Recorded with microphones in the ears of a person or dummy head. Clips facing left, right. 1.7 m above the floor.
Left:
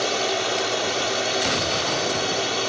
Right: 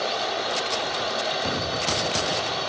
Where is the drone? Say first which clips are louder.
Left 3 dB; 40° left (ahead or behind).